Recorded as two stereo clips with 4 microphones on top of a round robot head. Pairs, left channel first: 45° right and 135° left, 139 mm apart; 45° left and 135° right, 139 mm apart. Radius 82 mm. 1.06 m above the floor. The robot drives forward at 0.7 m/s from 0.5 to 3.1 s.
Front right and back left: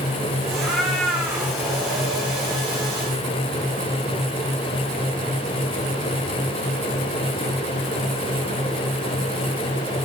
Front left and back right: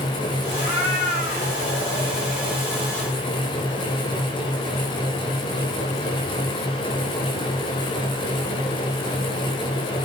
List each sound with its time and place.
0.5 s a cat meowing: 45° left, 5 m; by 2.6 s 60° left, 4.5 m